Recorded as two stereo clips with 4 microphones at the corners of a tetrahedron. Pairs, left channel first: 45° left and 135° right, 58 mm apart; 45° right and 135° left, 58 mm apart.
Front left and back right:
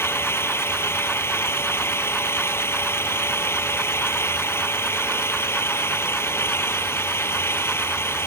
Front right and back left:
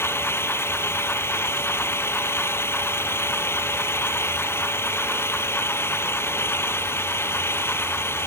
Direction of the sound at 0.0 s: Straight ahead.